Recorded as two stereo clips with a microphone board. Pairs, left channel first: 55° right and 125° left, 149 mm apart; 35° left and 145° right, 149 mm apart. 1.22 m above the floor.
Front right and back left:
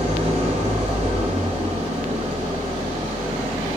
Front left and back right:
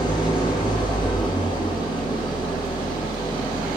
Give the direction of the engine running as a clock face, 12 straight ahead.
9 o'clock.